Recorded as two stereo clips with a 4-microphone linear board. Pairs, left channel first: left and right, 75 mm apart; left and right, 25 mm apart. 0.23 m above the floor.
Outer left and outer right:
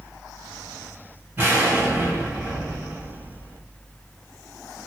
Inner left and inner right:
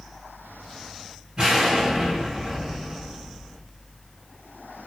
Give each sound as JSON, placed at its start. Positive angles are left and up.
{"t": 1.4, "sound": "an explosion", "side_deg": -25, "distance_m": 1.3}